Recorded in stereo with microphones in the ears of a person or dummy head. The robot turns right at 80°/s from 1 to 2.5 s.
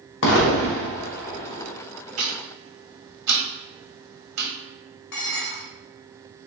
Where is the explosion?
65° left (ahead or behind), 0.8 m; by 1.7 s 10° left (ahead or behind), 0.8 m.